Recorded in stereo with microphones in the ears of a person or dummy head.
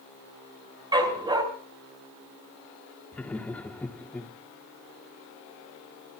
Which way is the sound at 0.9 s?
15° right (ahead or behind).